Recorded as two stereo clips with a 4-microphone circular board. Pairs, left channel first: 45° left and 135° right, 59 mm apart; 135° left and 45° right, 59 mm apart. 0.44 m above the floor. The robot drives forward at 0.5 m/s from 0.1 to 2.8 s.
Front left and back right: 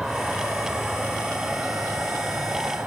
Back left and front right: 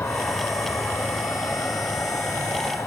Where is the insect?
145° left, 1.7 m; by 2.9 s 165° left, 2.5 m.